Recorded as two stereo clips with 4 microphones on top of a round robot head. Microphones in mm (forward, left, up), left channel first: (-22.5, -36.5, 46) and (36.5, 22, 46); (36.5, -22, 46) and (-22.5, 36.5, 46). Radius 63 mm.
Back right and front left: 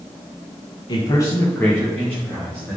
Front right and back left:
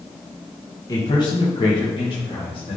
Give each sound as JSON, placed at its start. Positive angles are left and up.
{"t": 0.9, "sound": "a man speaking", "azimuth_deg": -95, "distance_m": 1.2}